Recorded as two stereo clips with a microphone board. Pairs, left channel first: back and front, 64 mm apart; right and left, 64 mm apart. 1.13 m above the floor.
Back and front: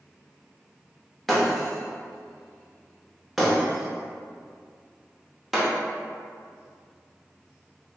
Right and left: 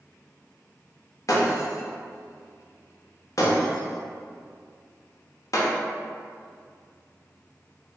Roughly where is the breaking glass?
Right.